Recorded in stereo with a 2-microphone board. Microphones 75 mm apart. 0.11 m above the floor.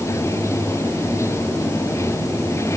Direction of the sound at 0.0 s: 35° left (ahead or behind).